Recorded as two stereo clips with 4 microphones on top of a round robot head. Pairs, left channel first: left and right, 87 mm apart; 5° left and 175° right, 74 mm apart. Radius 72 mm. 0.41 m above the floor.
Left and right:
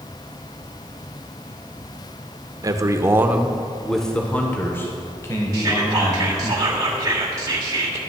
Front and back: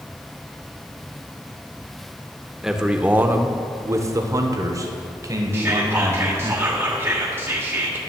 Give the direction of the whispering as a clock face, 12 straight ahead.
4 o'clock.